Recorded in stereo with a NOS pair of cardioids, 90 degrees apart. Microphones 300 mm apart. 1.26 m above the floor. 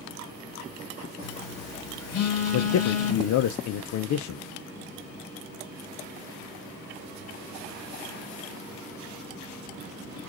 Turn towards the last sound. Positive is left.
turn(degrees=65)